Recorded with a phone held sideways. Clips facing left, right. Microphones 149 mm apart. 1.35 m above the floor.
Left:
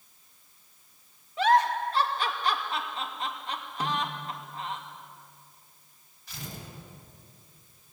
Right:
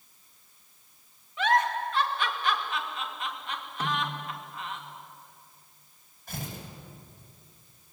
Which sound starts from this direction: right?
Tearing paper, at 6.3 s.